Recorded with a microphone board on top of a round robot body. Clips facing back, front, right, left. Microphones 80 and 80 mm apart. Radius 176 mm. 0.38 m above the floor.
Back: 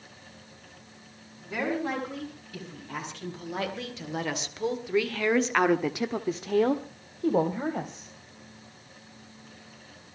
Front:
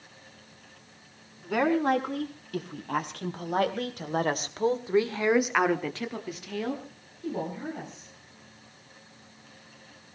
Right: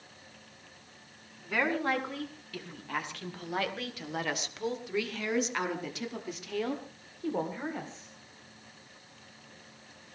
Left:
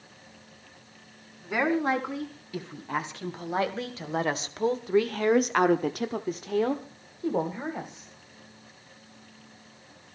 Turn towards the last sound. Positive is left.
turn(degrees=165)